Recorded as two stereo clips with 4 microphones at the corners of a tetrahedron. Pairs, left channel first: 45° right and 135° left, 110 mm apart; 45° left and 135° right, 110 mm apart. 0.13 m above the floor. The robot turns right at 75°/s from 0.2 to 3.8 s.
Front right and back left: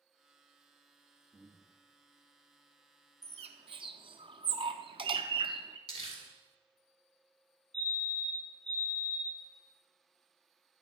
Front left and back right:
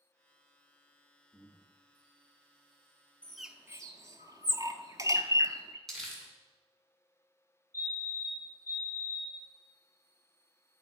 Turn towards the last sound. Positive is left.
turn(degrees=-115)